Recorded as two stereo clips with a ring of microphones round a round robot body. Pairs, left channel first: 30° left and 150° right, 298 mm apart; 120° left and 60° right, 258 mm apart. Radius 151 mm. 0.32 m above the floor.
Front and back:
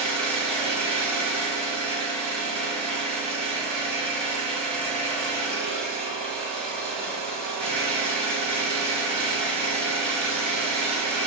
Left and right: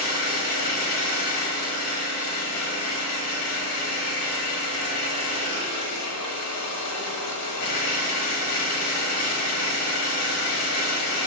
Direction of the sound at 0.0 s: 115° left.